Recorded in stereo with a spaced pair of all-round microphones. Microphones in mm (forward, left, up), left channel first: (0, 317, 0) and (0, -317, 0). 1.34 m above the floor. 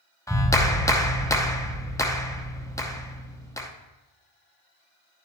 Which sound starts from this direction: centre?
A clap, at 0.3 s.